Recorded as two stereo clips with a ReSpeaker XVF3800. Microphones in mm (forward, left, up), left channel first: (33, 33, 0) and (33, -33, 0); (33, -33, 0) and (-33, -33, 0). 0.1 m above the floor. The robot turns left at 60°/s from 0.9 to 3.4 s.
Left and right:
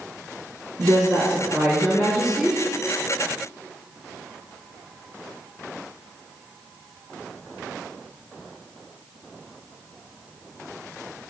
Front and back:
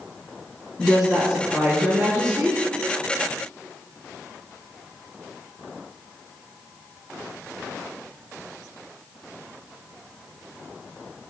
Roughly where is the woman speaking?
Right.